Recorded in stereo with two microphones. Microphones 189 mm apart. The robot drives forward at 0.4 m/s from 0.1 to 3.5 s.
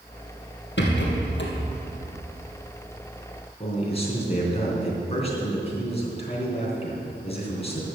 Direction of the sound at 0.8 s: 85° left.